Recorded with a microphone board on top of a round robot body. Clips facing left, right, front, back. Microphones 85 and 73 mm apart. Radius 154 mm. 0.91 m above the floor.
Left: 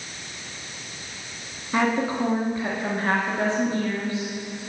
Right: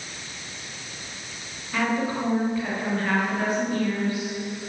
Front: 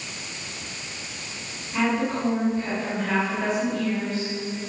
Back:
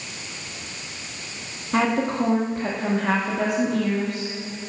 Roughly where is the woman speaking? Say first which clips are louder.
Left 2 dB, back 3 dB; behind left.